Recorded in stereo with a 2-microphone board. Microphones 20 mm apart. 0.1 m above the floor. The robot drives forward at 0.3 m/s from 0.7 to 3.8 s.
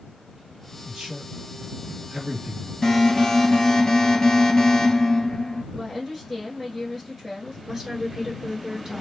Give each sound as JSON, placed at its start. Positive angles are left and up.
{"t": 0.8, "sound": "a man speaking", "side_deg": -45, "distance_m": 2.0}
{"t": 2.8, "sound": "an alarm", "side_deg": 20, "distance_m": 1.8}
{"t": 5.7, "sound": "a woman speaking", "side_deg": 5, "distance_m": 1.3}
{"t": 7.7, "sound": "a woman speaking", "side_deg": -30, "distance_m": 1.3}